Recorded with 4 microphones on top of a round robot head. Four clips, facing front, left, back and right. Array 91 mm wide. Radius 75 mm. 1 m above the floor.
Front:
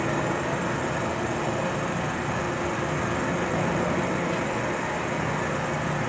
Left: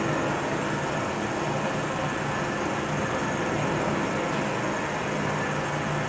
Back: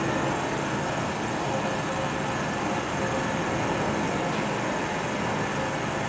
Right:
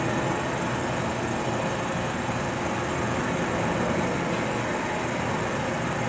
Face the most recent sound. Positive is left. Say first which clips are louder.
# even, even
turn(degrees=15)